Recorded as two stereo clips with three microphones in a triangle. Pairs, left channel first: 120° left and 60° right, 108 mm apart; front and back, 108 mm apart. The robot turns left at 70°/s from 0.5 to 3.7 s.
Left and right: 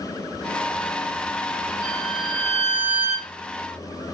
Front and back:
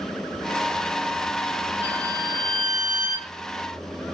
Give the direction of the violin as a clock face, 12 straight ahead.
10 o'clock.